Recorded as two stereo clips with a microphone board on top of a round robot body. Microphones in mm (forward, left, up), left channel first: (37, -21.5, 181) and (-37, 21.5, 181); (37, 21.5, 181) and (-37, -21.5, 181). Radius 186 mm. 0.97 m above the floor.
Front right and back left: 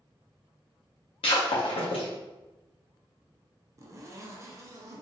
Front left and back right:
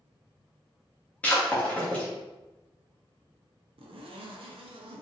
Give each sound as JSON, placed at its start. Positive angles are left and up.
{"t": 1.2, "sound": "breaking glass", "azimuth_deg": -45, "distance_m": 0.6}
{"t": 3.8, "sound": "a zipper", "azimuth_deg": -155, "distance_m": 0.6}